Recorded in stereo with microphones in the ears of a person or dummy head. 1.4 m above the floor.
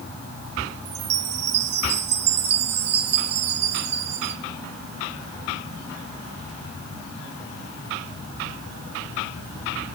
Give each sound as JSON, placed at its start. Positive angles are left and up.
{"t": 0.8, "sound": "a chime", "side_deg": -30, "distance_m": 1.0}